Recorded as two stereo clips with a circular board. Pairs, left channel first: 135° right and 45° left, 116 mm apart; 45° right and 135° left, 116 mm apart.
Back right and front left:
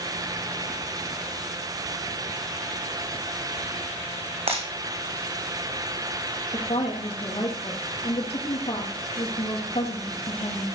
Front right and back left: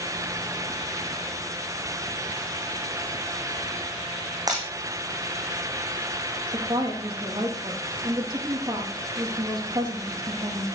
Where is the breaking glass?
75° left, 4 m.